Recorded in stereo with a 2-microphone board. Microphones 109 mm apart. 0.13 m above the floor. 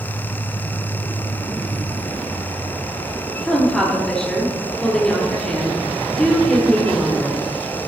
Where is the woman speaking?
5° left (ahead or behind), 3.5 m.